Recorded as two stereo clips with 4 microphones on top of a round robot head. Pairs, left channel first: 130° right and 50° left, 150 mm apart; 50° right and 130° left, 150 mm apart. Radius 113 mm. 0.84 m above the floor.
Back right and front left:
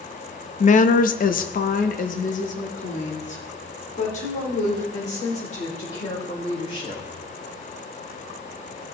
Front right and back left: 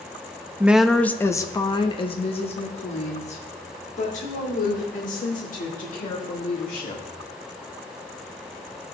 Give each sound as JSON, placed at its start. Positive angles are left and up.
{"t": 0.6, "sound": "a woman speaking", "azimuth_deg": -155, "distance_m": 0.8}